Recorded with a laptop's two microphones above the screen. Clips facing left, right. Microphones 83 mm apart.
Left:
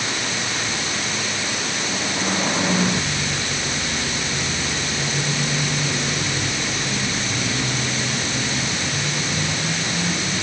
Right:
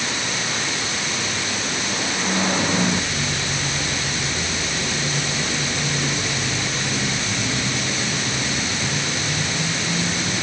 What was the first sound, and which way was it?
Only background noise.